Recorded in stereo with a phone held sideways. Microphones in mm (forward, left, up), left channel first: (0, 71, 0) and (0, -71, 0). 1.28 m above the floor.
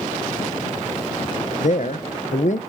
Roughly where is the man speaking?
Left.